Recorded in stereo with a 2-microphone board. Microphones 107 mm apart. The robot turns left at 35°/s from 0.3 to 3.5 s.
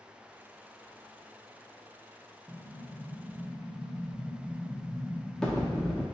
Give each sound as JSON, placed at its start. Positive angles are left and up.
{"t": 2.5, "sound": "an explosion", "azimuth_deg": -150, "distance_m": 0.8}